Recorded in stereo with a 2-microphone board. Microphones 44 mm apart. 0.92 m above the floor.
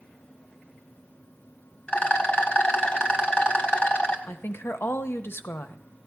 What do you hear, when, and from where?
1.9 s a rattle: 30° left (ahead or behind), 1.2 m
4.3 s a woman speaking: 60° left (ahead or behind), 0.7 m